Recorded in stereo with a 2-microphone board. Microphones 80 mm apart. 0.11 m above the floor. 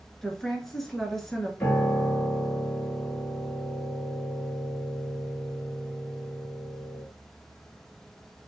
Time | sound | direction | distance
0.2 | a woman speaking | 5° left (ahead or behind) | 1.2 m
1.6 | a piano | 20° left (ahead or behind) | 1.6 m